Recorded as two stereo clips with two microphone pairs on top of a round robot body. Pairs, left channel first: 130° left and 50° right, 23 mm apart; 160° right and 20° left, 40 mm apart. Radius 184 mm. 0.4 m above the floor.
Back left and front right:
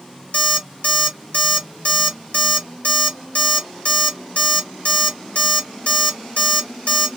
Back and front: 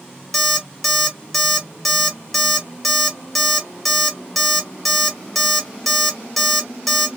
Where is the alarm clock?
110° left, 1.4 m.